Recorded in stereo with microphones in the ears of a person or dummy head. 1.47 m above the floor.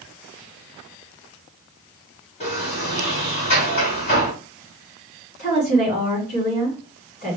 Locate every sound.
2.4 s a sliding door: 35° left (ahead or behind), 3 m
5.4 s a woman speaking: 45° left (ahead or behind), 3 m